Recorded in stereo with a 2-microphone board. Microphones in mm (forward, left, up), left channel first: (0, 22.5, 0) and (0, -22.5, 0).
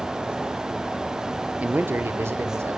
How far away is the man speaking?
About 0.7 m.